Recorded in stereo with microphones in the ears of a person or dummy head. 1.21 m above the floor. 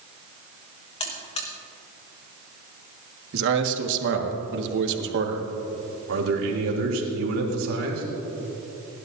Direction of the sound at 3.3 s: 70° right (ahead or behind).